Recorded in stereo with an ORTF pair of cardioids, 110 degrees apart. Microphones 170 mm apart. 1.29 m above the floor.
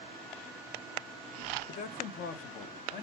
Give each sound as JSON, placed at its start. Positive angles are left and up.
{"t": 1.7, "sound": "a man speaking", "azimuth_deg": 50, "distance_m": 0.6}